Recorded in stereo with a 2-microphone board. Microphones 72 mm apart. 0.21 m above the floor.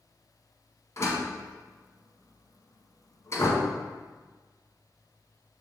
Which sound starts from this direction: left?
A door slam, at 1.0 s.